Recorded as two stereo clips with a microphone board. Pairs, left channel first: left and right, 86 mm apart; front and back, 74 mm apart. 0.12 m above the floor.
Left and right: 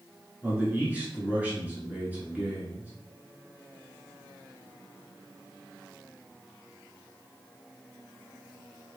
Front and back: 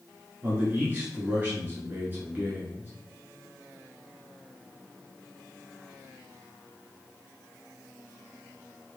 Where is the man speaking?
145° right, 1.2 m.